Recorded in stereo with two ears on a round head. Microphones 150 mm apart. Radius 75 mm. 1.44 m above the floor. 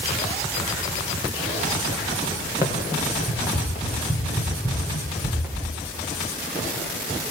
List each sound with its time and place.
2.6 s running footsteps: 20° right (ahead or behind), 6 m; by 5.7 s 5° right (ahead or behind), 7.5 m